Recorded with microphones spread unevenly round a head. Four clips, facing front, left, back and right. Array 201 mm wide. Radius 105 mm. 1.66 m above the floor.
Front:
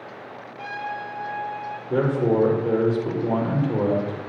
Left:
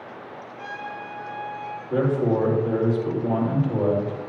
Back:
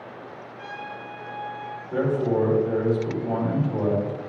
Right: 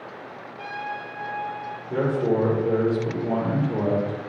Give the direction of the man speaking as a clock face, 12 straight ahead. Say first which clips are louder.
Left 1 dB, front 2 dB; 12 o'clock.